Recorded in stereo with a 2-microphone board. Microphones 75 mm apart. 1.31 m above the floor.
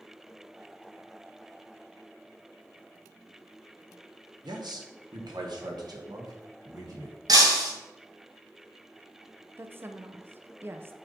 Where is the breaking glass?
60° right (ahead or behind), 2.0 m.